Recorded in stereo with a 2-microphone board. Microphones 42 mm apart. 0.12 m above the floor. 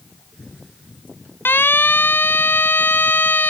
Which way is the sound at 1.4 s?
60° left (ahead or behind).